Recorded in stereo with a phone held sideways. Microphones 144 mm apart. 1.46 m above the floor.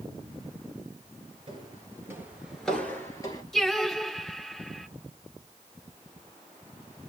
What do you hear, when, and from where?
1.5 s footsteps: 35° right (ahead or behind), 1.8 m; by 3.4 s 30° left (ahead or behind), 1.7 m
3.5 s singing: 5° left (ahead or behind), 1.3 m